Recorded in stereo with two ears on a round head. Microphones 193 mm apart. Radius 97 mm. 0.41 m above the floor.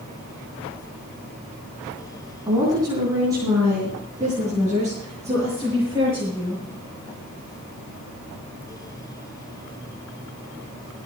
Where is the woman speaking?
15° right (ahead or behind), 3.5 m; by 6.6 s 10° right (ahead or behind), 8 m.